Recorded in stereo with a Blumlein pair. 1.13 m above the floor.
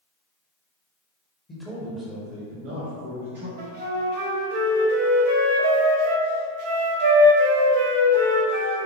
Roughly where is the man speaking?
Ahead.